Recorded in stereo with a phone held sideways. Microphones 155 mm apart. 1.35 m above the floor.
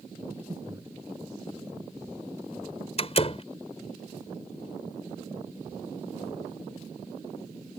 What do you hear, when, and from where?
0.3 s breathing: 20° right (ahead or behind)
3.0 s a door slam: 40° left (ahead or behind)